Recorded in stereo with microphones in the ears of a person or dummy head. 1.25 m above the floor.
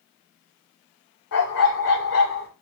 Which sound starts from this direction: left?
A dog barking, at 1.3 s.